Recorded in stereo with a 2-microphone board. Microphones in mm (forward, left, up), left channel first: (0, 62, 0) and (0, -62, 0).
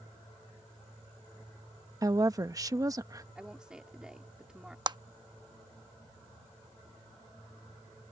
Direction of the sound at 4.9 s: 35° right (ahead or behind).